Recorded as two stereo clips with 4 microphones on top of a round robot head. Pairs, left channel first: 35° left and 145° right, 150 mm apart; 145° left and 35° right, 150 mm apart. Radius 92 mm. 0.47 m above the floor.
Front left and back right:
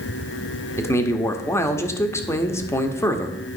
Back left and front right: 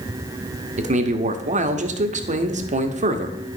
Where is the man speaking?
30° right, 1.0 m.